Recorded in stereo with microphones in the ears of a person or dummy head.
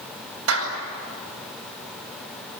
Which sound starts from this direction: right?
A clap, at 0.5 s.